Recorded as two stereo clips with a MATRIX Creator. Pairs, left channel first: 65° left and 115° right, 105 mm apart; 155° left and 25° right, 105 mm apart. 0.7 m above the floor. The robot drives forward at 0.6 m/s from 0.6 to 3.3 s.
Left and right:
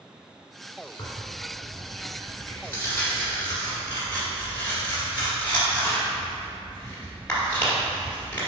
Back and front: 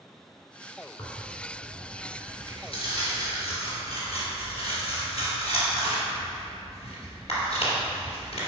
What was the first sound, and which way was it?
Tearing paper, 110° left.